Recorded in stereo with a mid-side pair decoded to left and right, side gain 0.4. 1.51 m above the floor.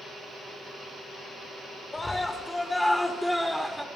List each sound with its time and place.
1.9 s a scream: 25° left, 6.5 m; by 3.9 s straight ahead, 5.5 m